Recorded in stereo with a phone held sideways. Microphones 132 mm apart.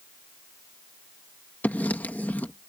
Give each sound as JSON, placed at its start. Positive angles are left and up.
{"t": 1.6, "sound": "writing", "side_deg": 10}